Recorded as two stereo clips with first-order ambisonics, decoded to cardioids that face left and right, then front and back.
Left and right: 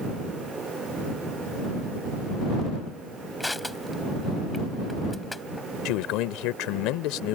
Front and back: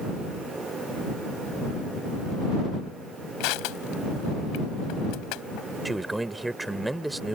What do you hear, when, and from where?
3.4 s crushing: 5° left
5.8 s a man speaking: 95° left